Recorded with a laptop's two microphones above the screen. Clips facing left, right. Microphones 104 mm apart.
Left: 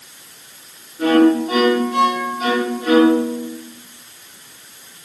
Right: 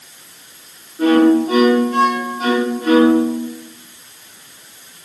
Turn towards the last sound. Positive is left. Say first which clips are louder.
# right 1 dB
turn(degrees=-40)  # may be behind; listen again after turning